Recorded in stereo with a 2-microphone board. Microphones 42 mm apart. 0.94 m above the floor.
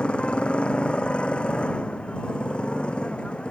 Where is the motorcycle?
25° left (ahead or behind).